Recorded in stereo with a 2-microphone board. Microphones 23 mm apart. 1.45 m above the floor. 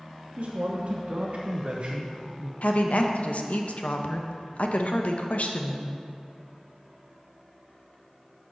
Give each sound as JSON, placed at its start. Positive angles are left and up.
{"t": 0.4, "sound": "a man speaking", "side_deg": -65, "distance_m": 1.6}
{"t": 2.6, "sound": "a woman speaking", "side_deg": 70, "distance_m": 1.0}